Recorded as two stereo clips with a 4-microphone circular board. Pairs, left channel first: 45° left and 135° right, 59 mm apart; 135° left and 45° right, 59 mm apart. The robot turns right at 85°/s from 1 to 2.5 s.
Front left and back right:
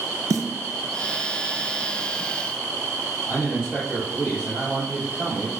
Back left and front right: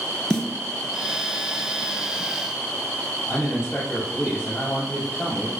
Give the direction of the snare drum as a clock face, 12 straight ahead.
5 o'clock.